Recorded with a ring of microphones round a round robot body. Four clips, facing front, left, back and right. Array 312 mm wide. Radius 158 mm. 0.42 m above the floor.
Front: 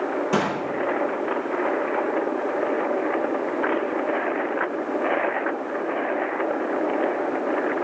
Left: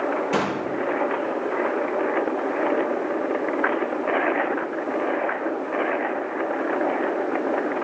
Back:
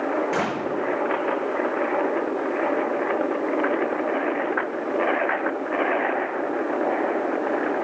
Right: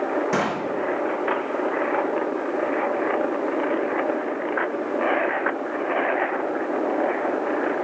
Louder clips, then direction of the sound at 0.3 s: Even, front 2 dB; 40° right.